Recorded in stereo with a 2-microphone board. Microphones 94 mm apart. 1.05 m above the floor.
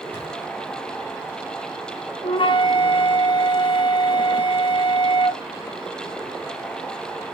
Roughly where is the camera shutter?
Left.